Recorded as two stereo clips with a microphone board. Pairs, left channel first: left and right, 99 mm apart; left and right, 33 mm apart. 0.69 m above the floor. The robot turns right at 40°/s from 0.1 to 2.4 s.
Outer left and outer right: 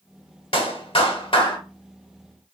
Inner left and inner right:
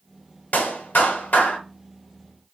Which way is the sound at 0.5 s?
80° left.